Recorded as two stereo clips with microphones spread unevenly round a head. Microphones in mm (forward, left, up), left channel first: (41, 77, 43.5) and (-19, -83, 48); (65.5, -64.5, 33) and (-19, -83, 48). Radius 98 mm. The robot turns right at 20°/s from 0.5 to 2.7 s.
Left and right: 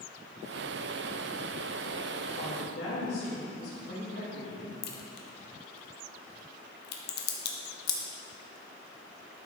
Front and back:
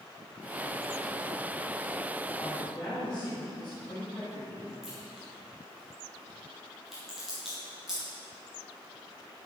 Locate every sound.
2.4 s a woman speaking: 65° left, 3 m; by 4.7 s 70° left, 3 m
4.8 s a crack: 105° left, 0.9 m